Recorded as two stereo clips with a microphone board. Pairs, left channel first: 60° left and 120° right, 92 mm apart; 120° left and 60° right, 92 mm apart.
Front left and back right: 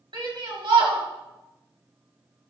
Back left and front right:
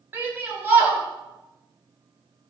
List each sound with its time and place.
0.1 s a shout: 125° right, 3 m